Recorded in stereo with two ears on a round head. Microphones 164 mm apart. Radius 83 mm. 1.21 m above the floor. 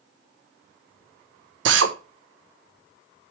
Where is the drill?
70° right (ahead or behind), 1.1 m.